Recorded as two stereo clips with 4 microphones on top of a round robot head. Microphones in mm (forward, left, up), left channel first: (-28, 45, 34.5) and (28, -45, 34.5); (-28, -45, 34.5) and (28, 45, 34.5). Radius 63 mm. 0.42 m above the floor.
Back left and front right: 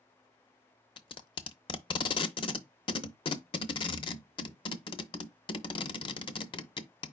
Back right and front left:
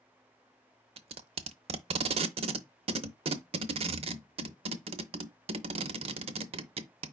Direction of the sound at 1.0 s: 80° left.